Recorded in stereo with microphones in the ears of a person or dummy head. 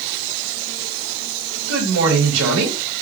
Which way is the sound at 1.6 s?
80° right.